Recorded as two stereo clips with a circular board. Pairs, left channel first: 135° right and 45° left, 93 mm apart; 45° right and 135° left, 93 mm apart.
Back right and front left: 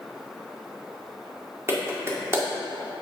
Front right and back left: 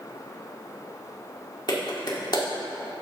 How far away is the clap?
About 1.6 m.